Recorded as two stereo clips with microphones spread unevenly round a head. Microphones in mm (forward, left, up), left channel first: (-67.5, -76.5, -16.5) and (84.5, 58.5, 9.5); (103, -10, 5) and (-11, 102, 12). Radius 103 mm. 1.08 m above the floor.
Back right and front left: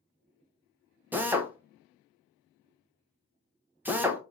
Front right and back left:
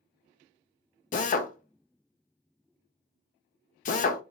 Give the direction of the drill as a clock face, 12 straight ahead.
1 o'clock.